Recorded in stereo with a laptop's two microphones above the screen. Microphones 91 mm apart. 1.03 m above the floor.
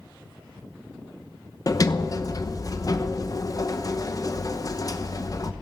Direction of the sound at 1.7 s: 40° left (ahead or behind).